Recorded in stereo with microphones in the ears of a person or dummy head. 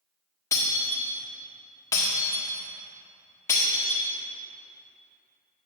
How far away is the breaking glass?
About 1.7 m.